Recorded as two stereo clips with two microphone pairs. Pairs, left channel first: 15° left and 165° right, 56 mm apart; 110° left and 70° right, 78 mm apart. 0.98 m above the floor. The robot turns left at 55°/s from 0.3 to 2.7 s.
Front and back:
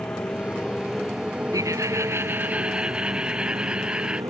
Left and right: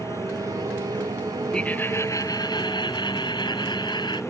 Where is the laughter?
175° right; by 4.2 s 120° left.